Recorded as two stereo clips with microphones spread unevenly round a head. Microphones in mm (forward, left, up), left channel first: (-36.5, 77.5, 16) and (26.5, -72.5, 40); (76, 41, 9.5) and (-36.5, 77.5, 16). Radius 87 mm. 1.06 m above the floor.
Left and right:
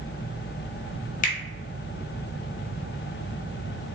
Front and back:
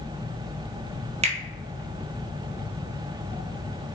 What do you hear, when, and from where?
1.2 s a finger snap: 140° left, 0.8 m